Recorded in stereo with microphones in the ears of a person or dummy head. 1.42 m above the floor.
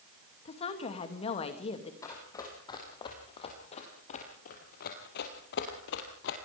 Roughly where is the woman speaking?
Left.